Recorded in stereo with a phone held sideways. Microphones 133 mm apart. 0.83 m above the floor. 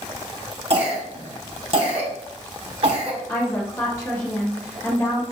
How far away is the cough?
About 0.8 m.